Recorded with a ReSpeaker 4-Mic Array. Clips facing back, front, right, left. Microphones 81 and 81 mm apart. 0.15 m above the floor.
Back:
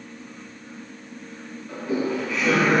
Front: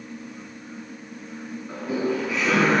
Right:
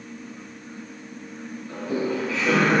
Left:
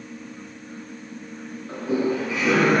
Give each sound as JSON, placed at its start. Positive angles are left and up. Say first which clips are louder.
{"t": 1.7, "sound": "laughter", "louder": "even, left 3 dB", "azimuth_deg": 45, "distance_m": 1.3}